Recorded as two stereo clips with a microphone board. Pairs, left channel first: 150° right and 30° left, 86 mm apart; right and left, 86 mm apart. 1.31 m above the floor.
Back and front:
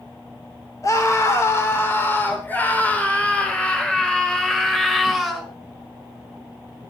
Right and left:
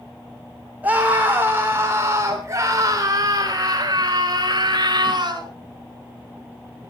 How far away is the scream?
About 3.5 m.